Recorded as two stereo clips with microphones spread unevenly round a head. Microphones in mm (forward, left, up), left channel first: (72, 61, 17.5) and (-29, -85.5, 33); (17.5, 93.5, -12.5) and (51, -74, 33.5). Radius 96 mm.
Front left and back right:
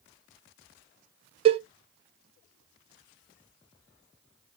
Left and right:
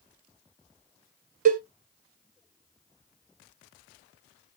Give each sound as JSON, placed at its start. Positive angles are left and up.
{"t": 1.4, "sound": "a cowbell", "azimuth_deg": -75, "distance_m": 0.5}